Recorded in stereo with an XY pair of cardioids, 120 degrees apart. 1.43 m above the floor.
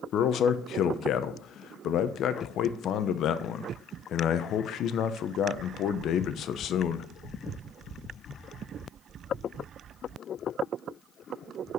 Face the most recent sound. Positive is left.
turn(degrees=60)